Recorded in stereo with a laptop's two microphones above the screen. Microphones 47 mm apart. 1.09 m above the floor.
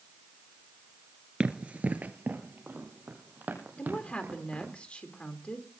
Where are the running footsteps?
20° right (ahead or behind), 1.1 m; by 4.7 s 40° right (ahead or behind), 4 m.